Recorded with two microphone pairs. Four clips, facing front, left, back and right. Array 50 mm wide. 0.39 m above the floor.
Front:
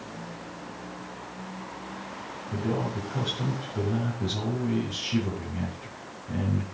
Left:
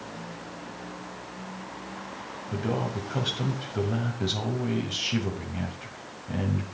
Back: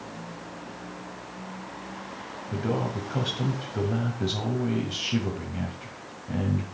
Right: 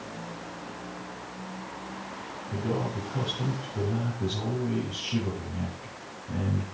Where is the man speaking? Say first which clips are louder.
Left 1 dB, back 1 dB; 115° left, 2 m.